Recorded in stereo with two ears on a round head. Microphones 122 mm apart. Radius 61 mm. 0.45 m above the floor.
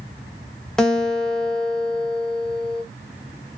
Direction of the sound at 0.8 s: 5° left (ahead or behind).